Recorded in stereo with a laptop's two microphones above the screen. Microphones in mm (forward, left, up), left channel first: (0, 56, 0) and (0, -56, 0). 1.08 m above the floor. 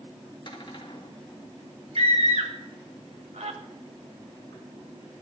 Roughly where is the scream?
Right.